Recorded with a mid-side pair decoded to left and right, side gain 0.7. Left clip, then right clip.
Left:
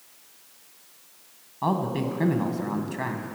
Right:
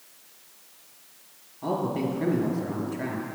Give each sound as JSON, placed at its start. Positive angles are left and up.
{"t": 1.6, "sound": "a man speaking", "azimuth_deg": 65, "distance_m": 1.6}